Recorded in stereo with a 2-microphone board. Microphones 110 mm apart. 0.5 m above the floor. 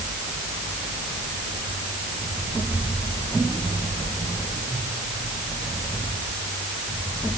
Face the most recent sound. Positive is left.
No sound to turn to.